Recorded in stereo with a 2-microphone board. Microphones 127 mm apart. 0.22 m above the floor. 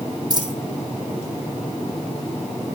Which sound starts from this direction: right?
A dropped coin, at 0.3 s.